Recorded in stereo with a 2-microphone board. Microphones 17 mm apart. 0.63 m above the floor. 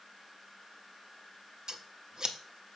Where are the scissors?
40° right (ahead or behind), 0.7 m.